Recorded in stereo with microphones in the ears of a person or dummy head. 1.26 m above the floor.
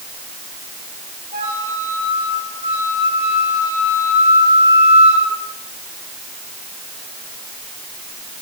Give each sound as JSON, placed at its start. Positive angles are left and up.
{"t": 1.3, "sound": "a flute", "side_deg": -35, "distance_m": 7.5}